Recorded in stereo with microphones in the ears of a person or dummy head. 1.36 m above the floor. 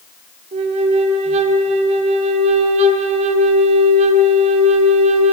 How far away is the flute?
About 0.5 m.